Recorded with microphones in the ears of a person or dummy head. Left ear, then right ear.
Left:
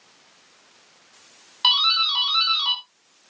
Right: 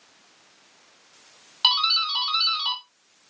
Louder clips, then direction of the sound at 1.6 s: Left 2 dB; 10° right (ahead or behind).